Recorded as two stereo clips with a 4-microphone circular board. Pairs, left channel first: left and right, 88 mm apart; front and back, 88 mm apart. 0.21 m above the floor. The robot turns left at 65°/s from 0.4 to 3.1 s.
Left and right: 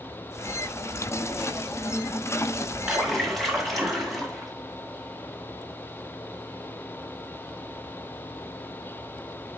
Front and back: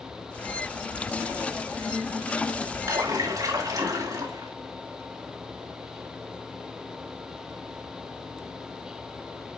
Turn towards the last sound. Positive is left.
turn(degrees=180)